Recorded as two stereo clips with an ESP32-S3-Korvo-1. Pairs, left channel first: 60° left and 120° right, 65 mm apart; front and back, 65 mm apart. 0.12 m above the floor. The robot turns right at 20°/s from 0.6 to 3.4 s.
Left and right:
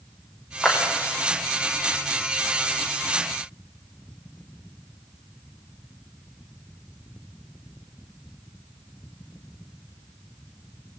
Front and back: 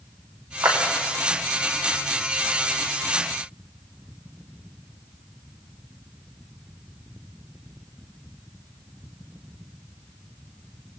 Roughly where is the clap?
Behind left.